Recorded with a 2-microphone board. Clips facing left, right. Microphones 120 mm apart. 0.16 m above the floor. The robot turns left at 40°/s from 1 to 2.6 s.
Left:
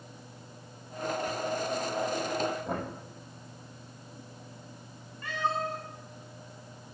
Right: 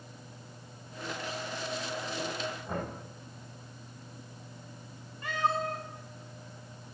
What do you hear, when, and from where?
2.6 s knocking: 65° left (ahead or behind), 5 m
5.2 s a cat meowing: 20° right (ahead or behind), 5 m